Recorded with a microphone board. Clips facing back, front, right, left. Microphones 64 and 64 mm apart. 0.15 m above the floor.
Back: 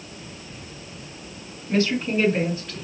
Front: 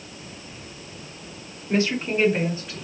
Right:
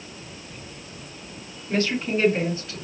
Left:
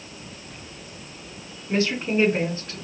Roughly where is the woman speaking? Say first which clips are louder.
Back 1 dB, left 1 dB; ahead left.